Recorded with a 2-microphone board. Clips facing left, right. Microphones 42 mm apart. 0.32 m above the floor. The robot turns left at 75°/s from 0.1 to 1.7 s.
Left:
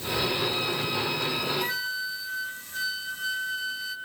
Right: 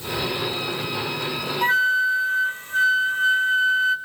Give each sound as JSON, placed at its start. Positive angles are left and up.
{"t": 1.6, "sound": "a flute", "side_deg": -40, "distance_m": 1.1}